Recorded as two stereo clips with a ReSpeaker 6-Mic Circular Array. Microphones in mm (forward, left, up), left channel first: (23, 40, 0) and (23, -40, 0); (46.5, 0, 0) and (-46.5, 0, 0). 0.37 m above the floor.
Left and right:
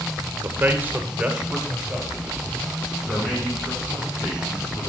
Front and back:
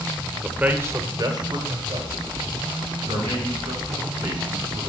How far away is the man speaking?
About 1.0 m.